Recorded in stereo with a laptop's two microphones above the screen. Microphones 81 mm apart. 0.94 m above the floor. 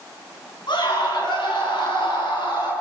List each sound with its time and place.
0.7 s a scream: 70° left (ahead or behind), 9 m; by 2.7 s 75° left (ahead or behind), 11 m